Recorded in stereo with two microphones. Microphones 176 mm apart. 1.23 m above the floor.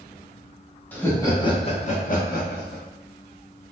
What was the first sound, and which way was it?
Laughter, 10° left (ahead or behind).